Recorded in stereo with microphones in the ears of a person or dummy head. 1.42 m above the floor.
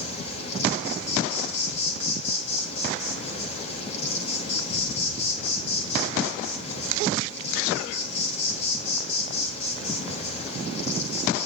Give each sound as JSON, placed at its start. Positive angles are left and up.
{"t": 0.0, "sound": "an insect", "side_deg": 40, "distance_m": 4.5}